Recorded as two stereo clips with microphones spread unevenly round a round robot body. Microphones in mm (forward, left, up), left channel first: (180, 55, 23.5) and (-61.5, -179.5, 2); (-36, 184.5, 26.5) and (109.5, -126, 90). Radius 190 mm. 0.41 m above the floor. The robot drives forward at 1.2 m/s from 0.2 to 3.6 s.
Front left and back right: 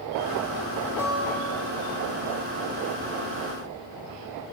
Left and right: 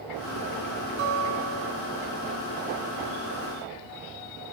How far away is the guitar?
About 1.0 m.